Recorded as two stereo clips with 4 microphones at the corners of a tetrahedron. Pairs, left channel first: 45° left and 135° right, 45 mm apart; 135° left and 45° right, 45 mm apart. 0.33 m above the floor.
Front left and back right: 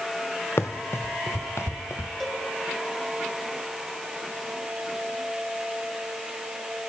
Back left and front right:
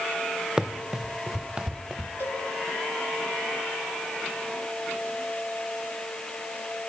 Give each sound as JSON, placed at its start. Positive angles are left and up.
{"t": 0.6, "sound": "running footsteps", "azimuth_deg": 30, "distance_m": 1.3}
{"t": 2.2, "sound": "a cowbell", "azimuth_deg": 130, "distance_m": 5.0}